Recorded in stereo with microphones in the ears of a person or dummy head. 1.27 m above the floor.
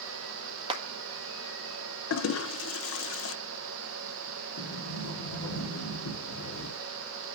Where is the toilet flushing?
70° left (ahead or behind), 1.0 m.